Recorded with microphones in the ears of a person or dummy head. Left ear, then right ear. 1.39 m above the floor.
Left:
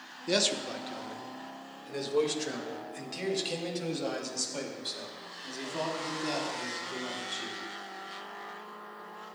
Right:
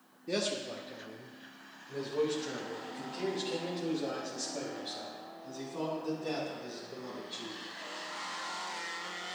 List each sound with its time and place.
0.3 s a man speaking: 35° left (ahead or behind), 0.9 m; by 7.6 s 75° left (ahead or behind), 4.5 m